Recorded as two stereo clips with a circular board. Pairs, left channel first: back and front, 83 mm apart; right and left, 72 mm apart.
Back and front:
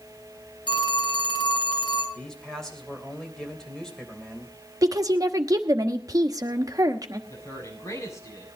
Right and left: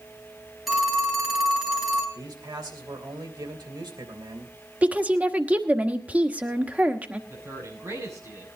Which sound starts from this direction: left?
A man speaking, at 2.1 s.